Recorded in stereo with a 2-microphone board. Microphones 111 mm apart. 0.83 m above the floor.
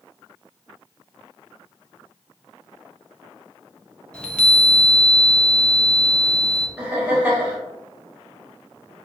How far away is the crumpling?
No crumpling in this recording.